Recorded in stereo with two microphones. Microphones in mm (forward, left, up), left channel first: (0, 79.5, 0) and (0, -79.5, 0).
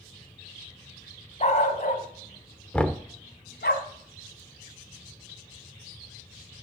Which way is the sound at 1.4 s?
45° left (ahead or behind).